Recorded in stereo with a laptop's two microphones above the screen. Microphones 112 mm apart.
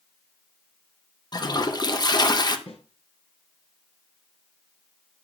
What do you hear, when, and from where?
1.3 s a toilet flushing: 40° left (ahead or behind), 0.6 m
2.7 s a snare drum: 65° left (ahead or behind), 2 m